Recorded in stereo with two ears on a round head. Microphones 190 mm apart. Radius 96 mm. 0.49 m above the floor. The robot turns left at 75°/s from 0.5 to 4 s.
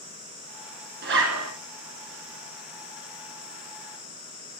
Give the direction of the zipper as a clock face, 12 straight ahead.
2 o'clock.